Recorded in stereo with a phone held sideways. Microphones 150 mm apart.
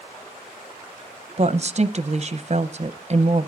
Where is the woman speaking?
45° right (ahead or behind), 0.6 m.